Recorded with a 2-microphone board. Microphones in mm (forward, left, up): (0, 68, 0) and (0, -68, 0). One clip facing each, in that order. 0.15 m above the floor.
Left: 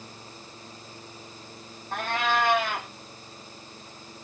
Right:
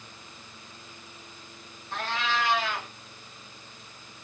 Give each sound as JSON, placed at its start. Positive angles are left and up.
{"t": 1.9, "sound": "a cat meowing", "side_deg": 50, "distance_m": 1.1}